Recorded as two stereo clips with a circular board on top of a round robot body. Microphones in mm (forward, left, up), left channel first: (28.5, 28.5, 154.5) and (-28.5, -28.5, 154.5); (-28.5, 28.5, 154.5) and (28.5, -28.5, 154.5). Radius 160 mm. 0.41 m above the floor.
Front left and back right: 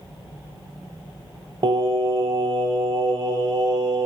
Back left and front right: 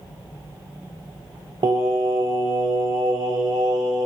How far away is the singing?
About 0.6 m.